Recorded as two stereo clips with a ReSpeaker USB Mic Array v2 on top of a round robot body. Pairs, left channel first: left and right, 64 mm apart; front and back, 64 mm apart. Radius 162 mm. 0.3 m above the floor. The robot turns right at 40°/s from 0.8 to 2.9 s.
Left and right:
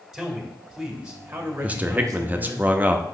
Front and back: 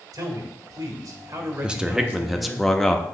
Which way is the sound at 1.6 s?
125° right.